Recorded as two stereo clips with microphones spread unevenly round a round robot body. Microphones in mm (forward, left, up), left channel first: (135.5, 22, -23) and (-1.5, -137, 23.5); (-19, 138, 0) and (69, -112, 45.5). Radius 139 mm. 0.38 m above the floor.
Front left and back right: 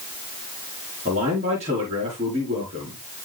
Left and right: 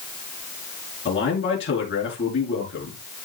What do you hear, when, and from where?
1.1 s a man speaking: 160° left, 4.5 m